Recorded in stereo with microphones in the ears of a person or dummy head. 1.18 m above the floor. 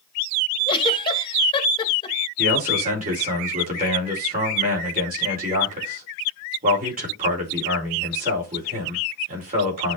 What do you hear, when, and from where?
0.7 s a giggle: 20° left (ahead or behind), 1.9 m
2.4 s a man speaking: 40° right (ahead or behind), 4 m